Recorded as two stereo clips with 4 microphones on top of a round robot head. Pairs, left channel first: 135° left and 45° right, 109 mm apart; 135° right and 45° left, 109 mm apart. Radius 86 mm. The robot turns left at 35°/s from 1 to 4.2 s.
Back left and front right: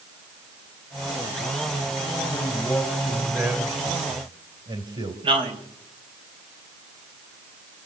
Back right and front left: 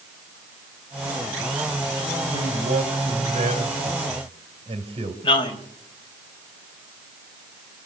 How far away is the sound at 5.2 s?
About 4 m.